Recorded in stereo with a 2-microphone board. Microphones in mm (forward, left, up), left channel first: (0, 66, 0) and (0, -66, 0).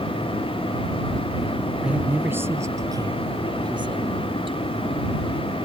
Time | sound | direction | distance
1.8 | a man speaking | 5° right (ahead or behind) | ?